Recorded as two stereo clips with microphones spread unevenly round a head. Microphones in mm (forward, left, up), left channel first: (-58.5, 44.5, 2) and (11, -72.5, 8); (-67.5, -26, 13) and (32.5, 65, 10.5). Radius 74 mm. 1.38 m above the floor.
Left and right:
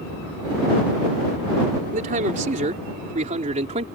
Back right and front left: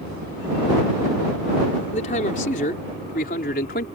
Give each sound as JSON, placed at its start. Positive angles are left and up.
{"t": 1.9, "sound": "a man speaking", "azimuth_deg": -90}